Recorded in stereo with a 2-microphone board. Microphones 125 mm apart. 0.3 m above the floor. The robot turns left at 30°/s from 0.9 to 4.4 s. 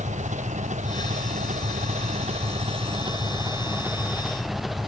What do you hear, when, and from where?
0.0 s an engine running: 75° right; by 4.9 s straight behind